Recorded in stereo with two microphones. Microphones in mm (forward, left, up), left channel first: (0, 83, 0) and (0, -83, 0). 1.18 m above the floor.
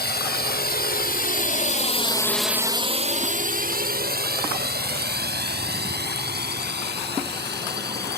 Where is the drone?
80° left; by 8.2 s 80° right.